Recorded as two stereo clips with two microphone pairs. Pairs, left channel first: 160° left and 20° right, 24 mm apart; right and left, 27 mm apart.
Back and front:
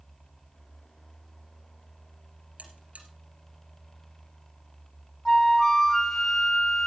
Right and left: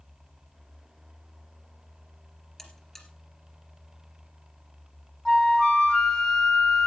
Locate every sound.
2.6 s a buzzer: 15° right, 3 m
5.2 s a flute: 135° right, 1.5 m